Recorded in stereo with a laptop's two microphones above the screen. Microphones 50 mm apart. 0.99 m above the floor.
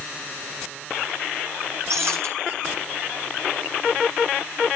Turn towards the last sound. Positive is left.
turn(degrees=-60)  # may be behind; listen again after turning